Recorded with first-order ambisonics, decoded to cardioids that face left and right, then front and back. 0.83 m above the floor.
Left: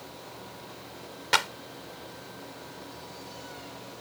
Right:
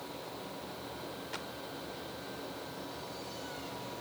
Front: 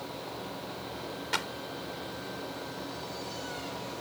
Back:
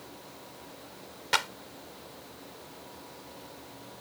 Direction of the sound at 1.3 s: 110° left.